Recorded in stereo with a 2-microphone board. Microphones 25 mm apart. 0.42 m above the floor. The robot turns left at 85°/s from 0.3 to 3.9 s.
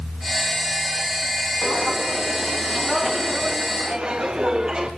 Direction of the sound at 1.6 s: 35° left (ahead or behind).